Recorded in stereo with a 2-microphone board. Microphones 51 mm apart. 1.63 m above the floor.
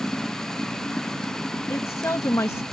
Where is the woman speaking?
85° left.